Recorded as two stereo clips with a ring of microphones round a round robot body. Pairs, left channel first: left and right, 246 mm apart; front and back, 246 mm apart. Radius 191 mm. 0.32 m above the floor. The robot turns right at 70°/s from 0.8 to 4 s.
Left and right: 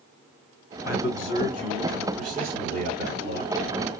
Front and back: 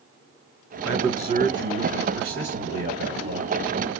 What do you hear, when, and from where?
0.8 s a man speaking: 95° left, 1.4 m; by 3.5 s 75° right, 1.4 m